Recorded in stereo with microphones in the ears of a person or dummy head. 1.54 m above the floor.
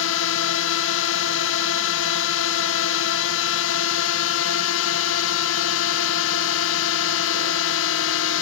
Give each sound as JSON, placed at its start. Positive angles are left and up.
{"t": 0.0, "sound": "a drone", "side_deg": 70}